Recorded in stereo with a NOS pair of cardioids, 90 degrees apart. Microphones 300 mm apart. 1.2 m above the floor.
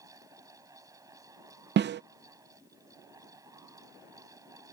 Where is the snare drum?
35° right.